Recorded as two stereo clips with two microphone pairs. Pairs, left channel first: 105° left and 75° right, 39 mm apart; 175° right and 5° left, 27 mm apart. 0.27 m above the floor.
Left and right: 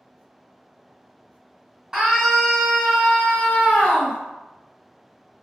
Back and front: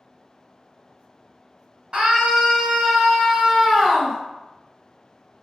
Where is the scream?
15° right, 1.1 m; by 4.2 s 115° left, 1.2 m.